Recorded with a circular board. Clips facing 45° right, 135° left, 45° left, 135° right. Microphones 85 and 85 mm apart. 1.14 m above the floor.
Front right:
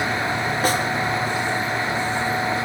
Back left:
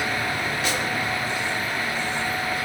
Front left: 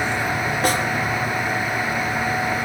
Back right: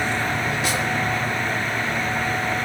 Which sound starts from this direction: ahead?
A snare drum, at 0.6 s.